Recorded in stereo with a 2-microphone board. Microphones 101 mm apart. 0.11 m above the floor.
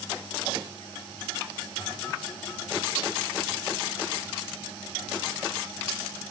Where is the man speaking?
I don't hear a man speaking.